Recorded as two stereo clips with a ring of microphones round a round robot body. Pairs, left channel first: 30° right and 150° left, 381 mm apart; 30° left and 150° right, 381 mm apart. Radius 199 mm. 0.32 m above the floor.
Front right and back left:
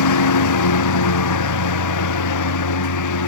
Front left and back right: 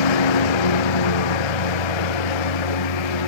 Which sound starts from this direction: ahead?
A lawn mower, at 0.0 s.